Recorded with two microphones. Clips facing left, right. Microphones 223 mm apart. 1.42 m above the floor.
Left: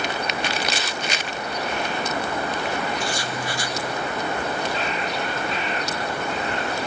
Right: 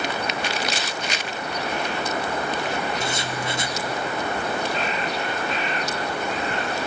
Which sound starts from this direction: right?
Writing, at 3.0 s.